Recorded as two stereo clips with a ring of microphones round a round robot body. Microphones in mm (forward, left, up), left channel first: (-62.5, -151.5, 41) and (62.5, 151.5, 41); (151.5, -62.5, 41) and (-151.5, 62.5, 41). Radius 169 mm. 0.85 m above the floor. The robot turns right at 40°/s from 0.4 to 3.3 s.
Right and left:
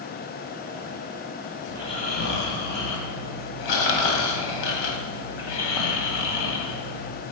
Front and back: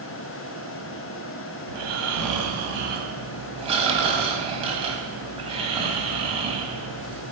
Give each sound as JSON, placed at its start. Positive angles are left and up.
{"t": 1.7, "sound": "snoring", "azimuth_deg": 165, "distance_m": 1.9}